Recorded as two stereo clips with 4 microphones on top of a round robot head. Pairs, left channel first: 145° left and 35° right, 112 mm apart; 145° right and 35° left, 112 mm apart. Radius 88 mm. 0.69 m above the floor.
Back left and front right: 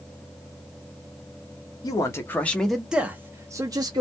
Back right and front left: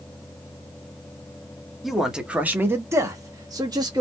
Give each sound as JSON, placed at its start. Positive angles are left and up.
{"t": 1.8, "sound": "a man speaking", "azimuth_deg": 125, "distance_m": 0.9}